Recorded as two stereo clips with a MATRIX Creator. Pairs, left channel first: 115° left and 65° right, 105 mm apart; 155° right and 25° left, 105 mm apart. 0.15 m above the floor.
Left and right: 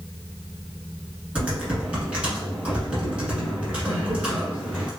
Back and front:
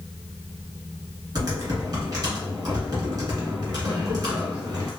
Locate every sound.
1.4 s typing on a keyboard: 5° left, 1.3 m